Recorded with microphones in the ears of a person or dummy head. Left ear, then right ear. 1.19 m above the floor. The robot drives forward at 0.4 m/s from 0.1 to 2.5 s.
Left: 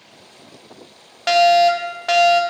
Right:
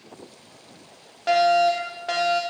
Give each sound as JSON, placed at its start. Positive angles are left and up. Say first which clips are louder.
{"t": 1.3, "sound": "a fire alarm", "louder": "left 5 dB", "side_deg": 25, "distance_m": 1.0}